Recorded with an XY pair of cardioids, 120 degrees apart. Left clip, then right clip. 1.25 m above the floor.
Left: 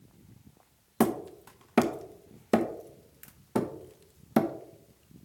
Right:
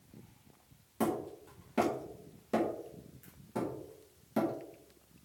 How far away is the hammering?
About 0.9 m.